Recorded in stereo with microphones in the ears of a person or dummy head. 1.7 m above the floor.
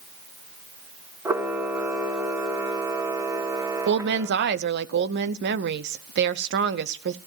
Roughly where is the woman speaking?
Right.